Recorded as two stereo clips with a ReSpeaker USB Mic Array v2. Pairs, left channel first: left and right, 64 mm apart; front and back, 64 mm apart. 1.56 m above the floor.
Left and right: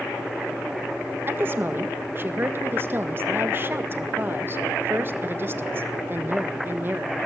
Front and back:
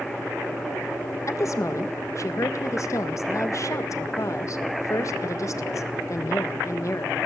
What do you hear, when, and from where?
1.3 s a woman speaking: 35° right, 1.7 m